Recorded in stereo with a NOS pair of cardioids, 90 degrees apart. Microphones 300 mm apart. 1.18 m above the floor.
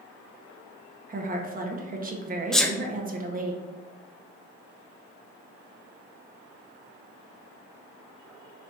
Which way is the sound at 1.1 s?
30° right.